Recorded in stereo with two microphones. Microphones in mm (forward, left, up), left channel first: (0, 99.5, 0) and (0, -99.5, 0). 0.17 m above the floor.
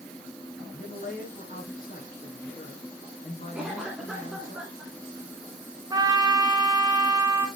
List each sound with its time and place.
0.7 s a man speaking: 45° left (ahead or behind), 2.5 m
3.5 s a cough: centre (ahead or behind), 1.5 m
5.9 s a trumpet: 20° right (ahead or behind), 1.0 m